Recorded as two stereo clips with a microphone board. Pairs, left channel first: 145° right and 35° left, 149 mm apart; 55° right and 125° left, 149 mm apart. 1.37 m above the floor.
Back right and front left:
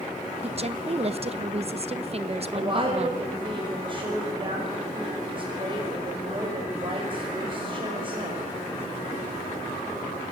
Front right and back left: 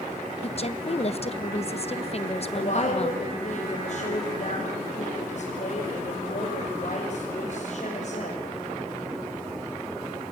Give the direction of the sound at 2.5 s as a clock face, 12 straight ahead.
1 o'clock.